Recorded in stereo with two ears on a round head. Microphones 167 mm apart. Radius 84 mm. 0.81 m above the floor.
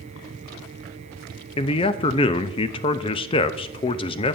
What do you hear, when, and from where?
1.6 s a man speaking: 30° left (ahead or behind), 0.5 m